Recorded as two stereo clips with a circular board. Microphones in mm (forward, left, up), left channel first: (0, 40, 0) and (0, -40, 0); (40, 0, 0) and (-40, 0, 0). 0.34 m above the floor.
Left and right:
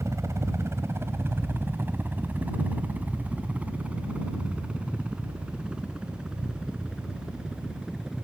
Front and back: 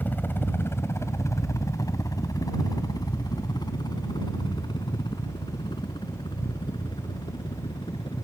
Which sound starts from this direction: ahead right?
A helicopter, at 0.0 s.